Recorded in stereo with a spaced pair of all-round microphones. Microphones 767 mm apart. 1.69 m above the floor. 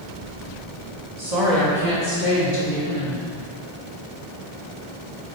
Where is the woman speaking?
45° right (ahead or behind), 2.5 m; by 3.3 s 65° right (ahead or behind), 1.7 m.